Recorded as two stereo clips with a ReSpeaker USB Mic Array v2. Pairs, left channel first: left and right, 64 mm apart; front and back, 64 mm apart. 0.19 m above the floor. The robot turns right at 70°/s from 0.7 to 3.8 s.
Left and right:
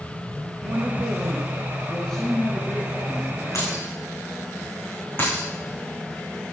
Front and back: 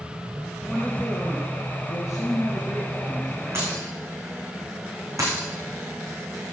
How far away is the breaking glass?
About 9 m.